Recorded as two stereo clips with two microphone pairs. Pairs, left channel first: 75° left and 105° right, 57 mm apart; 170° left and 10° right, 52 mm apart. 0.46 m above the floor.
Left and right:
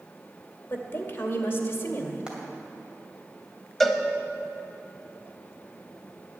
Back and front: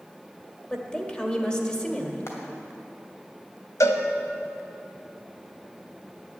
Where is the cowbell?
160° left, 1.0 m.